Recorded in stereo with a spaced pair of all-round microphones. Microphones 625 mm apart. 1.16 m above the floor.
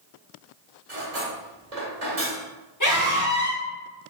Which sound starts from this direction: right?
Cutlery clinking, at 0.9 s.